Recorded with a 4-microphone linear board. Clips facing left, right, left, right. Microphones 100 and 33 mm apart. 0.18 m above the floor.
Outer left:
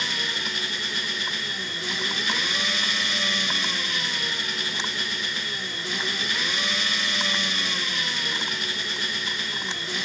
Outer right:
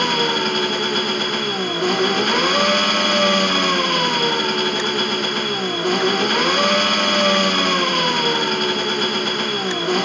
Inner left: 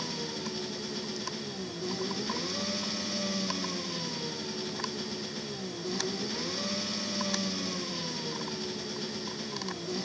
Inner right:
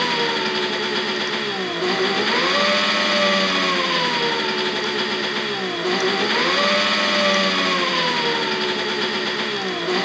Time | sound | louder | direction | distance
0.0 | an engine running | outer right 13 dB, inner right 16 dB | 55° right (ahead or behind) | ?